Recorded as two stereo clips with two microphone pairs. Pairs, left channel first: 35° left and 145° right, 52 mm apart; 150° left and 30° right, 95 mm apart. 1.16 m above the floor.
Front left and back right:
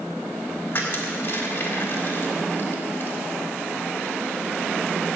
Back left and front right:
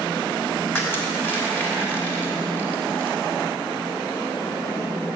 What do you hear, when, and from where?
0.7 s crushing: 80° left, 3 m